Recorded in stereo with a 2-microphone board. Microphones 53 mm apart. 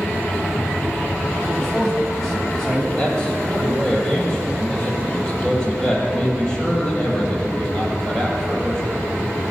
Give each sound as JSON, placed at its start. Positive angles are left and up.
{"t": 1.5, "sound": "a man speaking", "side_deg": 5, "distance_m": 2.0}
{"t": 3.0, "sound": "a man speaking", "side_deg": 15, "distance_m": 6.0}